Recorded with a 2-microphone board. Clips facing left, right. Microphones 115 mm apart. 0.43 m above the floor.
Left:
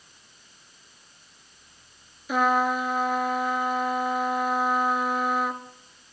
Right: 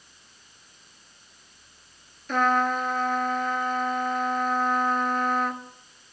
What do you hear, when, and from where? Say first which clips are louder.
2.3 s a trumpet: even; 10° left (ahead or behind), 1.2 m